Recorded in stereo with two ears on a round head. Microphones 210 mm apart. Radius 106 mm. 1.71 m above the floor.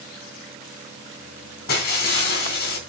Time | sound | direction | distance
1.7 | breaking glass | 45° left (ahead or behind) | 3 m